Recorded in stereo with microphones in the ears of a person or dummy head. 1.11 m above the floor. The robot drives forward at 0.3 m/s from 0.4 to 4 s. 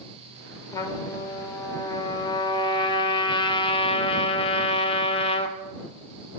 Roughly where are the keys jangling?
I don't hear keys jangling.